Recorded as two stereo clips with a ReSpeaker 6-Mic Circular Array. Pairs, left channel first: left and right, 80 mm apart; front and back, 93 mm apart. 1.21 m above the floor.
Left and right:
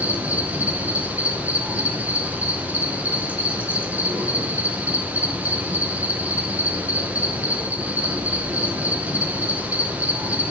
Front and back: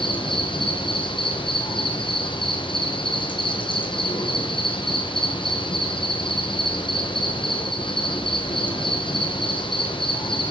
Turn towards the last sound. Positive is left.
turn(degrees=-20)